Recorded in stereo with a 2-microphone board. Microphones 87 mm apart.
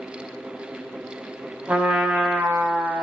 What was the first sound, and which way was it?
A trumpet, 20° right (ahead or behind).